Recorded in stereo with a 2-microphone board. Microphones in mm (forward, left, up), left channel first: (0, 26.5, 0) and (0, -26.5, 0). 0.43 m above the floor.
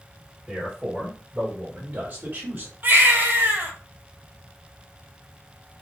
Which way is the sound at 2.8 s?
40° right (ahead or behind).